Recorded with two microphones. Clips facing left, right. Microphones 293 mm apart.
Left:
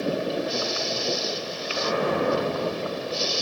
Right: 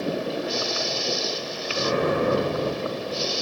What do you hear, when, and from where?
1.7 s an explosion: 45° right (ahead or behind), 2 m